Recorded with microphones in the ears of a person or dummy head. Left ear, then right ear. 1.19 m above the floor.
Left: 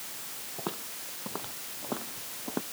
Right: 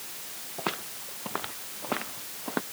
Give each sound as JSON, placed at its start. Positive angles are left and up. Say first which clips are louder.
{"t": 0.6, "sound": "footsteps", "louder": "right 6 dB", "side_deg": -70}